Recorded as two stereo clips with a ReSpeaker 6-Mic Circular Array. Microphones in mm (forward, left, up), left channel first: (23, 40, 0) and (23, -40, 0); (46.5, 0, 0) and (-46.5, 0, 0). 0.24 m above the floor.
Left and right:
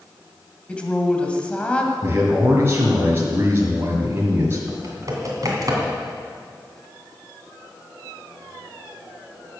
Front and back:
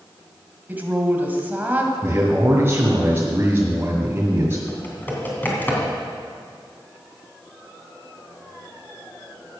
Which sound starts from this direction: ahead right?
Typing on a keyboard, at 4.7 s.